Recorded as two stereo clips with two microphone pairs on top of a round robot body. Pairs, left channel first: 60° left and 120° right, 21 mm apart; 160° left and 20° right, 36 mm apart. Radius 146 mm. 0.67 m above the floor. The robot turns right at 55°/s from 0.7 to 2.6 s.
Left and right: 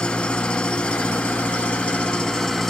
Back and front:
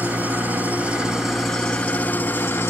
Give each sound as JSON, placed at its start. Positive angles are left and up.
{"t": 0.0, "sound": "an engine running", "azimuth_deg": 35, "distance_m": 1.9}